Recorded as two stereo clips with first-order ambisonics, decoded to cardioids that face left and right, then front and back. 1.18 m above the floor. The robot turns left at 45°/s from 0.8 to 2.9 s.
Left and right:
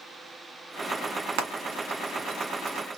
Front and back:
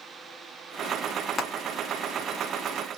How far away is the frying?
About 2 m.